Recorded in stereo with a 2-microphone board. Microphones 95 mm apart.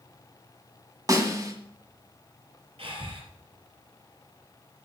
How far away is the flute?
No flute in this recording.